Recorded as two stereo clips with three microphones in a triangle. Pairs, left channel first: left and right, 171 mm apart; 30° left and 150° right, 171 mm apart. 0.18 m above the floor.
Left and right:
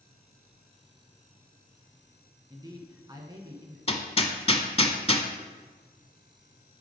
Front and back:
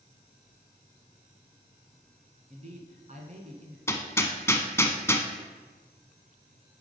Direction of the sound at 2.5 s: 145° right.